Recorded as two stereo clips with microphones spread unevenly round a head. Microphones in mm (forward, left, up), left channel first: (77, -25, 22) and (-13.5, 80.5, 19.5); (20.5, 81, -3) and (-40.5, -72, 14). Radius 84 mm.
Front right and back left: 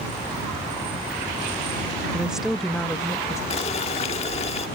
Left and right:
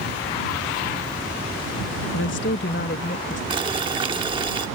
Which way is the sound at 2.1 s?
50° left.